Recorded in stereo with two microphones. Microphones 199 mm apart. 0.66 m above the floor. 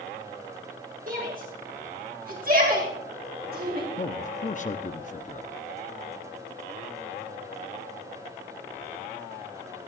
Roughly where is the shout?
Right.